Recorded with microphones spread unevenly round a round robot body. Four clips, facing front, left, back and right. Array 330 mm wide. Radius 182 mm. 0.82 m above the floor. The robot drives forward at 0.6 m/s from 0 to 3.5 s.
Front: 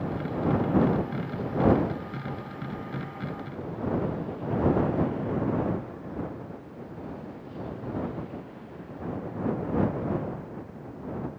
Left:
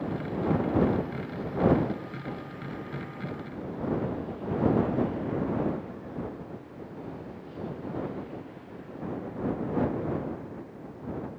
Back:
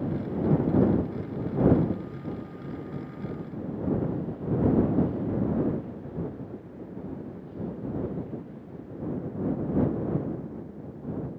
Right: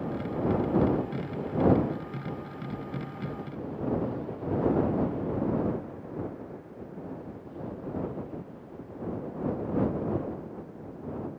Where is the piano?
I don't hear a piano.